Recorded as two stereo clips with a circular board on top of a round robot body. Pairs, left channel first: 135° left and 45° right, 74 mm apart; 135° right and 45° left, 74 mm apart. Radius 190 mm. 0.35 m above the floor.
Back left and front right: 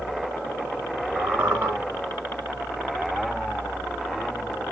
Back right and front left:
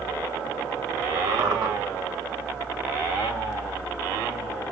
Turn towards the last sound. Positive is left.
turn(degrees=20)